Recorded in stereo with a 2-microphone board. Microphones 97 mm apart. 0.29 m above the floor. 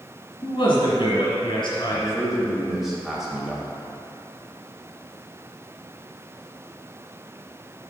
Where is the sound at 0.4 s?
60° left (ahead or behind), 2 m.